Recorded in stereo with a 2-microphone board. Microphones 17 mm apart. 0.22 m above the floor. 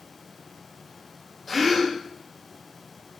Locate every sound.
1.5 s a gasp: 20° left (ahead or behind), 5.5 m